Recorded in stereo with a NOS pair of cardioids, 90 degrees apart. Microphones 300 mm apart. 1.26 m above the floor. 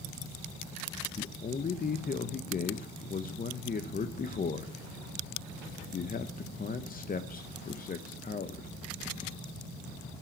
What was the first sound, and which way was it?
A man speaking, 30° left.